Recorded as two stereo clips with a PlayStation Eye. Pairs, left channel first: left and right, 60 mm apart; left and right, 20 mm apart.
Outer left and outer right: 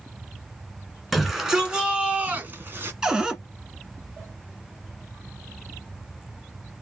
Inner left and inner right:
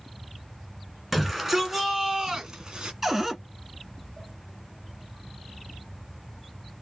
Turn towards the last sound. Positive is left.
turn(degrees=-10)  # may be behind; listen again after turning